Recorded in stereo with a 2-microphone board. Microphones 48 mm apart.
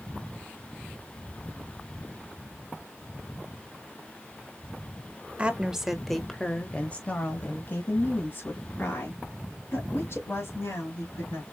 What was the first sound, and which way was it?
A woman speaking, 25° right (ahead or behind).